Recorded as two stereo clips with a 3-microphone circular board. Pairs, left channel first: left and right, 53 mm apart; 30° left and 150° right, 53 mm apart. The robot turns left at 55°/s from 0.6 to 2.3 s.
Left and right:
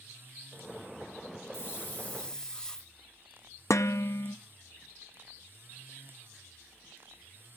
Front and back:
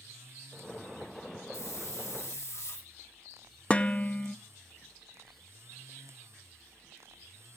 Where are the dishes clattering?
95° left, 0.5 m.